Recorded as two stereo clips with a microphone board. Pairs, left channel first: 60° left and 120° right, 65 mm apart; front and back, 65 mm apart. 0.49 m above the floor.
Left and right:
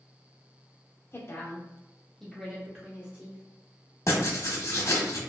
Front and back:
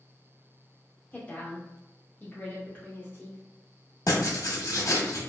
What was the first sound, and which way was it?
A woman speaking, 55° left.